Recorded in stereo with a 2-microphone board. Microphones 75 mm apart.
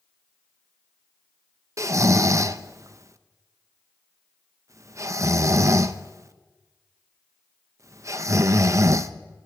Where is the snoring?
45° right (ahead or behind), 0.6 m.